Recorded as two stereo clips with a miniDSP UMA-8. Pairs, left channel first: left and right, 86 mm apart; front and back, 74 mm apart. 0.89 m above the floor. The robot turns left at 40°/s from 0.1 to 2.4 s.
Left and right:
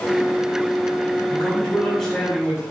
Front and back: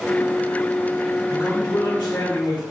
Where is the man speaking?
35° left, 2 m; by 2.6 s 10° right, 2 m.